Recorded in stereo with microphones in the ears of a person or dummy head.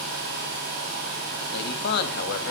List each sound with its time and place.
1.5 s a man speaking: 60° left (ahead or behind), 3 m